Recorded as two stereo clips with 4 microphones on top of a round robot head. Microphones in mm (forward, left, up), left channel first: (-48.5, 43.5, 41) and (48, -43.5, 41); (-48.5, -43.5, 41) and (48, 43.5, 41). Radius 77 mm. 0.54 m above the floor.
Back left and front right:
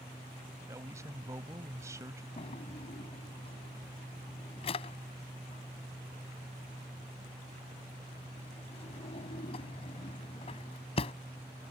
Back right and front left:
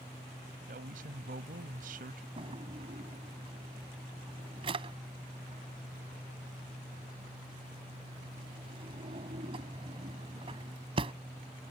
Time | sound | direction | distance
0.7 | a man speaking | 25° left | ?
2.4 | a drawer | 90° left | ?